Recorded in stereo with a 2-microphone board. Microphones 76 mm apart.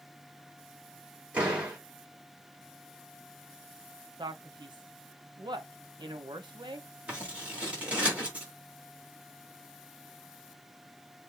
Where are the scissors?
20° right (ahead or behind), 2.5 m.